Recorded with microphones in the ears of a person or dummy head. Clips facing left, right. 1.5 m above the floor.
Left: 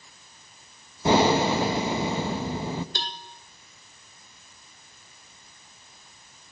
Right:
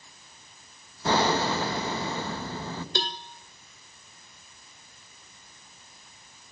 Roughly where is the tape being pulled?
No tape being pulled in this recording.